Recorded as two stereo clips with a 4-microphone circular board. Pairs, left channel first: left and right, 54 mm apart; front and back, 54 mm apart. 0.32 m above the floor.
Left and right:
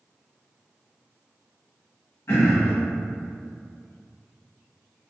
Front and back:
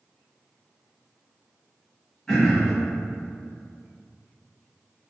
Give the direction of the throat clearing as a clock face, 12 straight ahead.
9 o'clock.